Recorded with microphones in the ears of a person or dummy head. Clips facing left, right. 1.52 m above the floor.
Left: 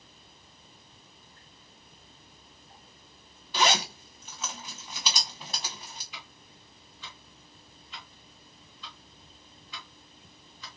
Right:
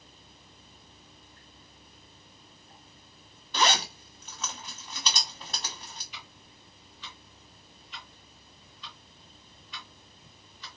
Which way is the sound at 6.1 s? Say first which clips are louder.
Left 1 dB; 45° left (ahead or behind).